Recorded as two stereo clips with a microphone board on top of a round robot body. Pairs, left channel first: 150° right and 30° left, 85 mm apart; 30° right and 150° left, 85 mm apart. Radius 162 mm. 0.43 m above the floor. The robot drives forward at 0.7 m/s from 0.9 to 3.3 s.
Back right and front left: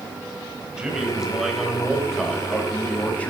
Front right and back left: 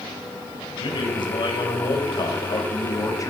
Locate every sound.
0.8 s a man speaking: 50° right, 3.5 m; by 3.3 s 80° right, 3 m